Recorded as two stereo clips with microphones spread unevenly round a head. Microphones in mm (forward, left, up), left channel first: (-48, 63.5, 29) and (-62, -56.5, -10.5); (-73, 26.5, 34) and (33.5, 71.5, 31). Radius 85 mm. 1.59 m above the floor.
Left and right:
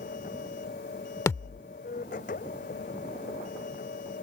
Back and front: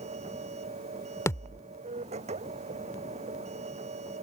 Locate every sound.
0.0 s a machine running: 45° left
1.3 s a thud: 140° left